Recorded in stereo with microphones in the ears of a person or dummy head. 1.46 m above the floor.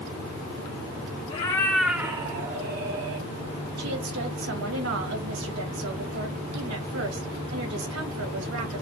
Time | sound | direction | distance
1.3 | a cat meowing | 35° left (ahead or behind) | 1.1 m
3.8 | a woman speaking | 75° right (ahead or behind) | 1.9 m